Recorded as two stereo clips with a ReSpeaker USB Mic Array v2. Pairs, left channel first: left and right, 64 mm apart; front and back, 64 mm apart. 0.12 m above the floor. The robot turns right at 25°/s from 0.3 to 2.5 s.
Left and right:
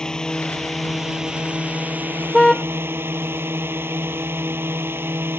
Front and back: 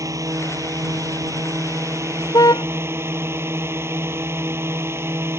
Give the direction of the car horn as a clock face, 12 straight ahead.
12 o'clock.